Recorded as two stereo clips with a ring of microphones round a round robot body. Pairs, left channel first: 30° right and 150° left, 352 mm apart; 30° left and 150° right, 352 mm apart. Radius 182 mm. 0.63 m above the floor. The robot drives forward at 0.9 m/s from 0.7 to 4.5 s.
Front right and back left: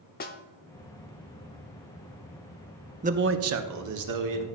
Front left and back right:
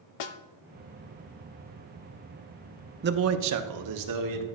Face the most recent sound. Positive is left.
turn(degrees=180)